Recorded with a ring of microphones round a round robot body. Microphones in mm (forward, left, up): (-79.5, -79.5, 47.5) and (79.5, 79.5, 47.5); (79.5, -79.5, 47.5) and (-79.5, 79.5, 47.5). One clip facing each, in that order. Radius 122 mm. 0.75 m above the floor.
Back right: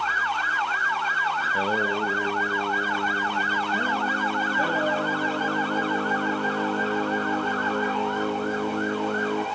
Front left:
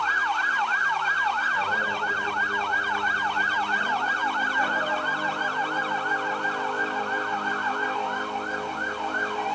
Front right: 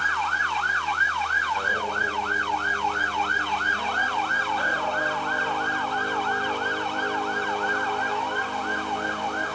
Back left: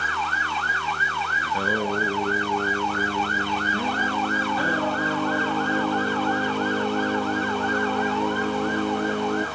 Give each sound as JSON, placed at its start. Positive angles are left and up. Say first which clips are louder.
{"t": 1.4, "sound": "singing", "louder": "back right 6 dB, back left 7 dB", "azimuth_deg": 165, "distance_m": 2.5}